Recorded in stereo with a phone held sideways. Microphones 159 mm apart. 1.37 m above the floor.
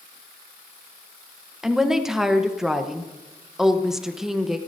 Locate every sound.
1.6 s a woman speaking: 5° right (ahead or behind), 0.9 m